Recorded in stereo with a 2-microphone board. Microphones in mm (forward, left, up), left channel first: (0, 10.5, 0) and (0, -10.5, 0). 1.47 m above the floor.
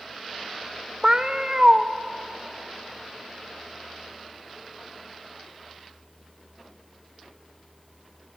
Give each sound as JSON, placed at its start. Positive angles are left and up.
{"t": 1.0, "sound": "a cat meowing", "side_deg": -25, "distance_m": 0.9}